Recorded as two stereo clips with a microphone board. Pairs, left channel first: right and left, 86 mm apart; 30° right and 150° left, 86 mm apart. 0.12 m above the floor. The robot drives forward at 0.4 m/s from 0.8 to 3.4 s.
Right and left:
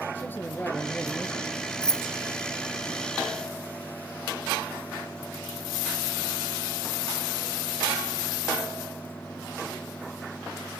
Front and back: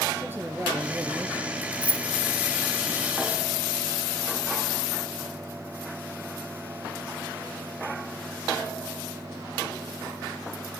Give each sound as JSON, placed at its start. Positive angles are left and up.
{"t": 0.1, "sound": "a man speaking", "azimuth_deg": -150, "distance_m": 2.0}
{"t": 1.8, "sound": "keys jangling", "azimuth_deg": -160, "distance_m": 0.8}